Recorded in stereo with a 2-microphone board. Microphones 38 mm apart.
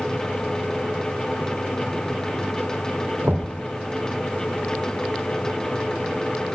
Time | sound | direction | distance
3.2 | knocking | 75° right (ahead or behind) | 3 m